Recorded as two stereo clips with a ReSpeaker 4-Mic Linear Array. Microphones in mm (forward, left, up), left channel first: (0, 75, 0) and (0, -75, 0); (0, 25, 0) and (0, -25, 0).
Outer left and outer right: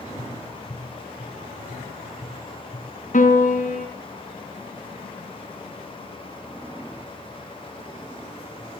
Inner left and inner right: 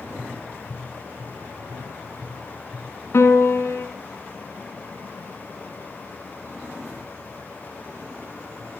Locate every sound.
0.2 s tapping: 40° left (ahead or behind), 3 m
3.1 s a piano: 60° left (ahead or behind), 1.9 m